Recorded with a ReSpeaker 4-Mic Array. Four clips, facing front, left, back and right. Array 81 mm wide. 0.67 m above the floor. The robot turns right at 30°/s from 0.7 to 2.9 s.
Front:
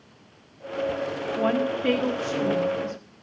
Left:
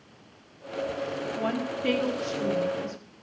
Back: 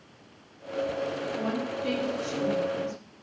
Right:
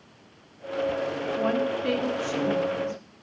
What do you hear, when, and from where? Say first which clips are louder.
1.4 s a woman speaking: right 5 dB, front 7 dB; straight ahead, 1.4 m; by 3.0 s 50° left, 1.4 m